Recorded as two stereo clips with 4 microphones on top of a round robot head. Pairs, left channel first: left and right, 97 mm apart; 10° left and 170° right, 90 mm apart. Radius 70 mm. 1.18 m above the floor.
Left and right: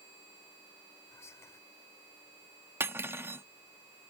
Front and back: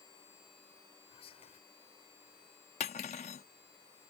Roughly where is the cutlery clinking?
Ahead right.